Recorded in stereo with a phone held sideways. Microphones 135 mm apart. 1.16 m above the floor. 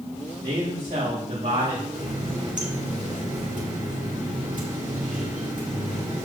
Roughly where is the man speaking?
Right.